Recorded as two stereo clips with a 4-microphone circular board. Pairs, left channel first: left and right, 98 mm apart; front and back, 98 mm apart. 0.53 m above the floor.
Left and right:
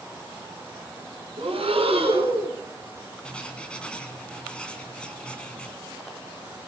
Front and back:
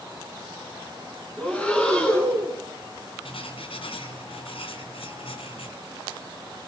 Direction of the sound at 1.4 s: 75° right.